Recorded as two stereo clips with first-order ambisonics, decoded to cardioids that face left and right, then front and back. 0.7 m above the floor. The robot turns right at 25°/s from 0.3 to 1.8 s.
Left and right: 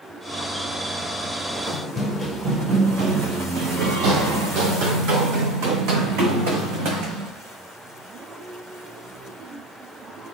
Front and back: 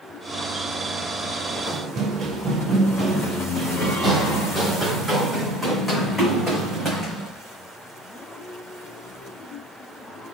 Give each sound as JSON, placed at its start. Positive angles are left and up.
{"t": 1.7, "sound": "running footsteps", "azimuth_deg": 150, "distance_m": 0.8}